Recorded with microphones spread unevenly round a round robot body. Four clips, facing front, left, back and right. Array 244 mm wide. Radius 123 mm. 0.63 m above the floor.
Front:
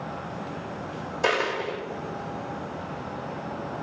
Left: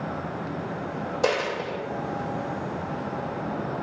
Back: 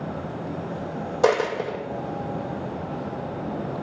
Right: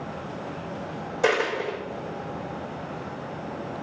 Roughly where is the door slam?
I don't hear a door slam.